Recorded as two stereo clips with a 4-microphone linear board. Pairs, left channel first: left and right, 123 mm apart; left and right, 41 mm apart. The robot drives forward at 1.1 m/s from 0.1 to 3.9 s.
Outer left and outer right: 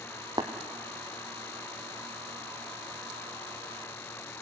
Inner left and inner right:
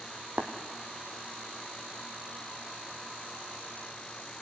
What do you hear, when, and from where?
0.4 s tapping: 35° right (ahead or behind), 1.6 m